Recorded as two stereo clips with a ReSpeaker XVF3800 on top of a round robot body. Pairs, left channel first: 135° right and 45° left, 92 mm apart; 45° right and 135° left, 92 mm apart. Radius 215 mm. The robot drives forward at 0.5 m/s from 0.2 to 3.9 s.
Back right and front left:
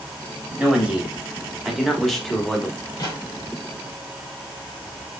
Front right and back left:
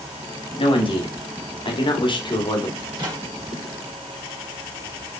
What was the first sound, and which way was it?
A man speaking, 30° right.